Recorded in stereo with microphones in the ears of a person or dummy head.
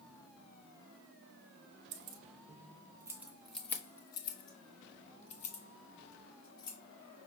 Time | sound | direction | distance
1.9 | keys jangling | 60° right (ahead or behind) | 0.9 m